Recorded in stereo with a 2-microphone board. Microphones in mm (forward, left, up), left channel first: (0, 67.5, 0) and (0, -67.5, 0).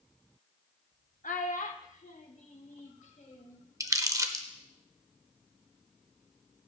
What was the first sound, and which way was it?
A child speaking, 80° left.